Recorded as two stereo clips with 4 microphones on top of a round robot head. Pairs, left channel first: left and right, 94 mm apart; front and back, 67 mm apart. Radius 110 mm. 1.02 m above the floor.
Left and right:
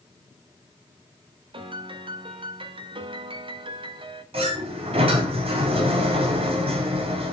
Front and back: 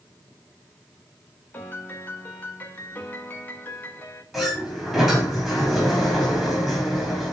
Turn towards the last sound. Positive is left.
turn(degrees=-85)